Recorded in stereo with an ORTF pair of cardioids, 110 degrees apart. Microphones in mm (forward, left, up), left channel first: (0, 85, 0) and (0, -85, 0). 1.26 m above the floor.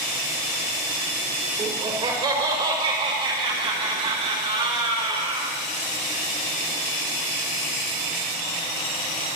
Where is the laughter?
25° right, 5 m; by 5.5 s 35° right, 8 m.